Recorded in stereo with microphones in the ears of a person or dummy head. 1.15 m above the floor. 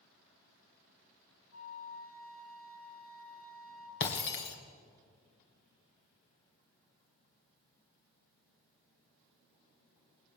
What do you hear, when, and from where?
1.5 s a flute: 75° left (ahead or behind), 2.5 m
4.0 s breaking glass: 65° left (ahead or behind), 2.5 m